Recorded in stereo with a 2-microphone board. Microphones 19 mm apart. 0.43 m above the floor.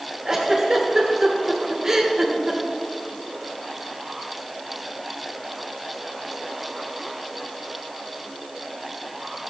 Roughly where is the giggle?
Right.